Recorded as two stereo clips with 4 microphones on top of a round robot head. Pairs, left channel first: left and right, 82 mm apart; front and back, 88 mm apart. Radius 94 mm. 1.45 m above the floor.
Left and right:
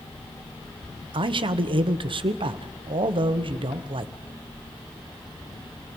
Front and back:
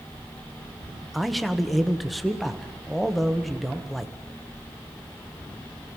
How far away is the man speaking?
About 1.1 m.